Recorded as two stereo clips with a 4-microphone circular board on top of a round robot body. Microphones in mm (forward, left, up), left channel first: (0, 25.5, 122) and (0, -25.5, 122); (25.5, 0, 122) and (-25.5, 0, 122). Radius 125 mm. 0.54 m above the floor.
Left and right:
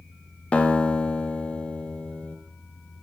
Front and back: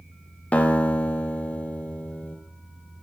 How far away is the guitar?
About 0.7 m.